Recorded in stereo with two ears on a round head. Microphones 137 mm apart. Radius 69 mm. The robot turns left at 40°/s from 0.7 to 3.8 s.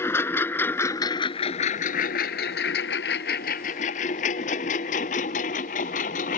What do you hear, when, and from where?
0.0 s a lawn mower: 15° left (ahead or behind); by 6.4 s 50° left (ahead or behind)